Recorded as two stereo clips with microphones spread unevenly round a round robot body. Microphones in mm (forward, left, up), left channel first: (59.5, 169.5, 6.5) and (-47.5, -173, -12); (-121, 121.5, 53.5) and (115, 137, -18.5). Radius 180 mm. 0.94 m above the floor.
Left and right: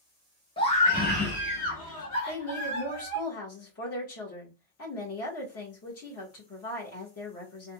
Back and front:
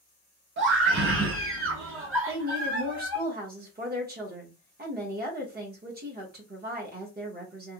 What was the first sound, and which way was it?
A scream, 5° right.